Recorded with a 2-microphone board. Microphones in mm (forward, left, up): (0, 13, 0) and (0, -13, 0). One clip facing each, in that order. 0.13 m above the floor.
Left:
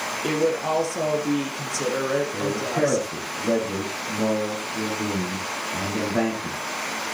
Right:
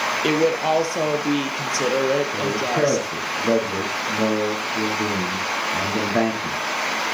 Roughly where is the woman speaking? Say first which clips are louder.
Right 3 dB; right.